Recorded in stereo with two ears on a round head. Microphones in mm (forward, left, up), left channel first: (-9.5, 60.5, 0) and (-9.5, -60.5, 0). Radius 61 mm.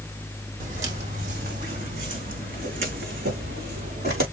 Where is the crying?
No crying in this recording.